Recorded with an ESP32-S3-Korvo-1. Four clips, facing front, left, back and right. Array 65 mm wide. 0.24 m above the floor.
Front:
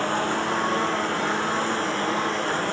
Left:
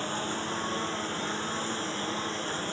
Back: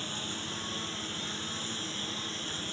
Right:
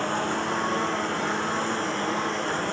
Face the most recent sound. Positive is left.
turn(degrees=-30)